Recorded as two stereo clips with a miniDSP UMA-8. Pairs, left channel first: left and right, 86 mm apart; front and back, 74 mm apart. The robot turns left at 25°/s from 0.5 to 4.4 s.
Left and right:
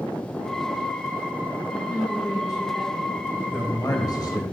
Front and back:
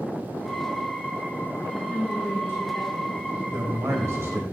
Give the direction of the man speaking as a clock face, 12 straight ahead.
7 o'clock.